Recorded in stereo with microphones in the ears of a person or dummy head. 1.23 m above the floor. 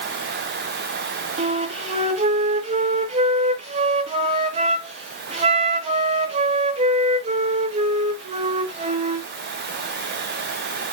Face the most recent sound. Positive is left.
turn(degrees=-30)  # may be behind; listen again after turning